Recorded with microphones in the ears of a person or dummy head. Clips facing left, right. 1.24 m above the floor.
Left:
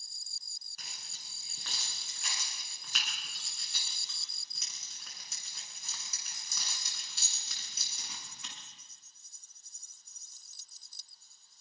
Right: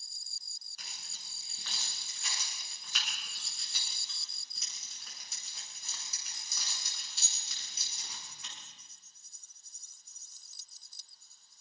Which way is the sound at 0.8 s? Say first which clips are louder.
Even; 45° left (ahead or behind).